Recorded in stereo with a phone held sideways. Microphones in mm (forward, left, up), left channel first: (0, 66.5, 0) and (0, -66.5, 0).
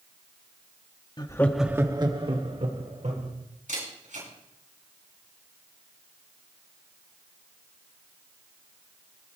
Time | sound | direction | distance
1.2 | laughter | 35° left (ahead or behind) | 1.0 m
3.7 | a camera shutter | 70° right (ahead or behind) | 6 m